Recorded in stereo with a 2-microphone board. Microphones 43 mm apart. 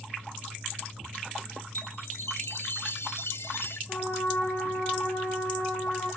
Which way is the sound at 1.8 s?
70° left (ahead or behind).